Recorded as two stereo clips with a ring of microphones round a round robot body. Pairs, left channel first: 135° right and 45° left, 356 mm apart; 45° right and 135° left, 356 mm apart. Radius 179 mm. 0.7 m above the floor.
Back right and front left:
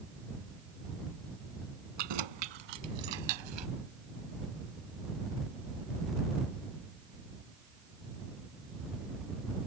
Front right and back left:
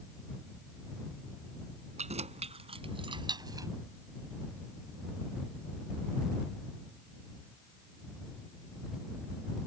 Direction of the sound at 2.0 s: 60° left.